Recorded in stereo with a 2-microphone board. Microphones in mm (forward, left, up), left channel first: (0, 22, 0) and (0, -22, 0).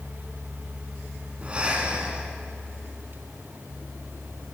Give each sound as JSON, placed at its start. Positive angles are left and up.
{"t": 1.4, "sound": "breathing", "side_deg": -30, "distance_m": 1.7}